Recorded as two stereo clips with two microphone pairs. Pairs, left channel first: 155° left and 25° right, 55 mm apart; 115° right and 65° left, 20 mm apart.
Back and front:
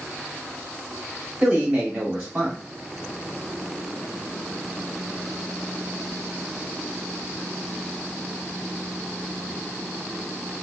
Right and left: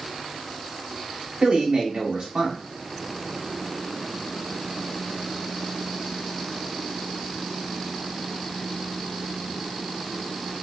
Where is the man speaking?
45° left, 1.9 m.